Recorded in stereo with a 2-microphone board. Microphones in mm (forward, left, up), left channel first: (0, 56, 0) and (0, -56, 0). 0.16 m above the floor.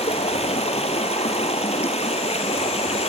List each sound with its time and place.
0.0 s running water: 75° left (ahead or behind), 1.6 m